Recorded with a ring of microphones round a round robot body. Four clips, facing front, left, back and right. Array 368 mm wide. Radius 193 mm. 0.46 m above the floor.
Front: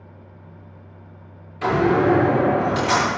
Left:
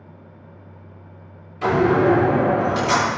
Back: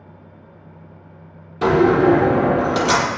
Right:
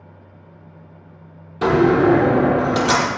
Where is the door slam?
135° right, 6.5 m.